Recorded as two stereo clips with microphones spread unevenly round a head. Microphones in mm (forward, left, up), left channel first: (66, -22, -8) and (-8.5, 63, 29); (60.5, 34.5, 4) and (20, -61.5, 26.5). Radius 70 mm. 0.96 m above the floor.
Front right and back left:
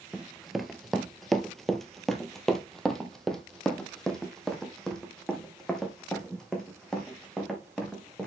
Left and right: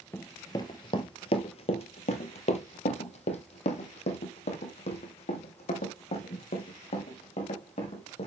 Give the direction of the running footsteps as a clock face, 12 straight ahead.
7 o'clock.